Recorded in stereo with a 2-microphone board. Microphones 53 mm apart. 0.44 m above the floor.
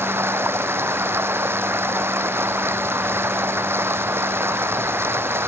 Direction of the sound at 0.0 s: 45° right (ahead or behind).